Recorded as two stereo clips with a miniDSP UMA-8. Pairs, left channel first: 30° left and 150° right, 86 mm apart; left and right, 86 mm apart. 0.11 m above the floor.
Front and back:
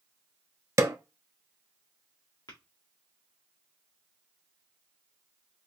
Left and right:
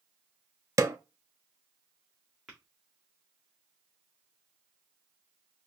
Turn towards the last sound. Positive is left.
turn(degrees=-5)